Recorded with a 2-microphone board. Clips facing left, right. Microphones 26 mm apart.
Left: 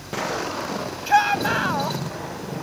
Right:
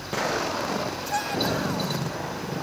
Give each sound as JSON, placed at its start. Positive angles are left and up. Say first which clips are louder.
{"t": 1.1, "sound": "a shout", "louder": "left 10 dB", "side_deg": 45}